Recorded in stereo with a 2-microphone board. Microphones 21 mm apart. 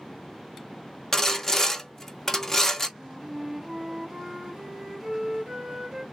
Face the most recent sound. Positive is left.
turn(degrees=-10)  # may be behind; listen again after turning